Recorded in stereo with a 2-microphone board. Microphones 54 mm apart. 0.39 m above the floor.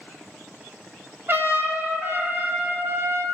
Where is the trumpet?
45° right (ahead or behind), 0.7 m.